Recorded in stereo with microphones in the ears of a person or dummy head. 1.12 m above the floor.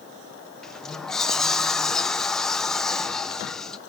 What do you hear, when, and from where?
0.6 s a sliding door: 5° left (ahead or behind), 0.7 m